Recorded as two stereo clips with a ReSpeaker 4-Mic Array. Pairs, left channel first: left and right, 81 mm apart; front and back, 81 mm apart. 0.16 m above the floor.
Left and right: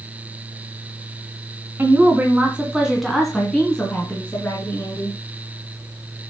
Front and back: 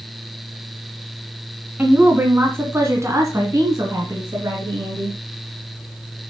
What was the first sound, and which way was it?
A woman speaking, 130° right.